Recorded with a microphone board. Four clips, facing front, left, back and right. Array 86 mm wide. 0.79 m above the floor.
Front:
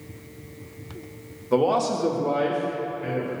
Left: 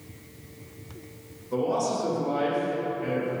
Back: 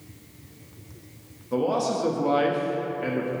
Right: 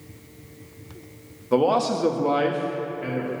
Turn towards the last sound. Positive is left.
turn(degrees=-165)